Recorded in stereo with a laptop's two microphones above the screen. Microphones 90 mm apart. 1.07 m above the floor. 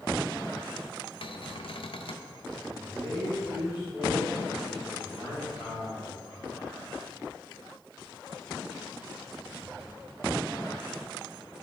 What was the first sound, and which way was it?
A cupboard door, 75° left (ahead or behind).